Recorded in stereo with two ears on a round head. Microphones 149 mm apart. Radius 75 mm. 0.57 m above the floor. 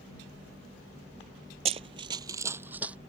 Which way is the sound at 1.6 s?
40° right (ahead or behind).